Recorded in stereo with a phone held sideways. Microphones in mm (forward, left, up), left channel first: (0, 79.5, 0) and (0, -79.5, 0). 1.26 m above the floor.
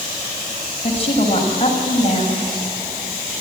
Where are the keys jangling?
No keys jangling in this recording.